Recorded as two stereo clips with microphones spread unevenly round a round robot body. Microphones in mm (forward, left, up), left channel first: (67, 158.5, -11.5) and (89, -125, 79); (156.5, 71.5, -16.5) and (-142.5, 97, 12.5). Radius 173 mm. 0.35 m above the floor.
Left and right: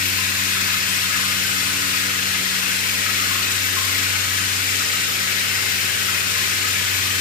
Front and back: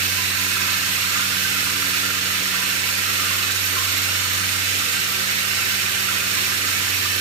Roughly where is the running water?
Behind left.